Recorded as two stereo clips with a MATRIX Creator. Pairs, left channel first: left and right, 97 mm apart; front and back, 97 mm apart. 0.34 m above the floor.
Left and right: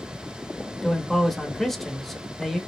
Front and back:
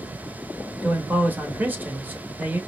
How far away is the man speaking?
About 0.9 m.